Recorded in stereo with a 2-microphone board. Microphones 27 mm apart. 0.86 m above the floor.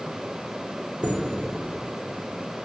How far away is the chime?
About 1.9 m.